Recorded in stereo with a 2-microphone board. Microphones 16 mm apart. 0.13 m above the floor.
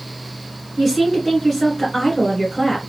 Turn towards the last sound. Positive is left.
turn(degrees=-10)  # may be behind; listen again after turning